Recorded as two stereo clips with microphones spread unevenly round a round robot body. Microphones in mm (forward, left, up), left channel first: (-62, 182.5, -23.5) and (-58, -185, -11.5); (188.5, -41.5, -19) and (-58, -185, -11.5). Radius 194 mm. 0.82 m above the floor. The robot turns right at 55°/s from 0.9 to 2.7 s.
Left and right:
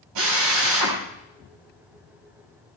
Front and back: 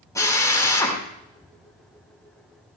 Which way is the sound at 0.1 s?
50° right.